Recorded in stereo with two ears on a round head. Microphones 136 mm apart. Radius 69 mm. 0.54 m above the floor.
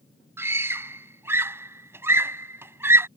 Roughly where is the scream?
Centre.